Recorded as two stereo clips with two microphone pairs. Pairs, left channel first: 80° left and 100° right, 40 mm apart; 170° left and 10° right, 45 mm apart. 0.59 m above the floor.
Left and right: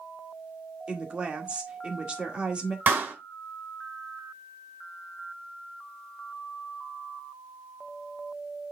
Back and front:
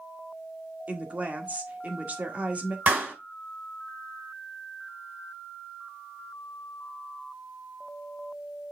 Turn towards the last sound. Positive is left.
turn(degrees=-60)